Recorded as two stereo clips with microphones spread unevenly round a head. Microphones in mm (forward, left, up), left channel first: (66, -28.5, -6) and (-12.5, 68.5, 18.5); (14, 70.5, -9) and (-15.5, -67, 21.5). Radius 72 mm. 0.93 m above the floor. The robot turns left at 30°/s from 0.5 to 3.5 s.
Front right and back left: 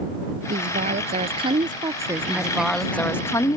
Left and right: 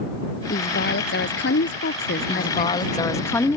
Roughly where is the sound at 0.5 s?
Left.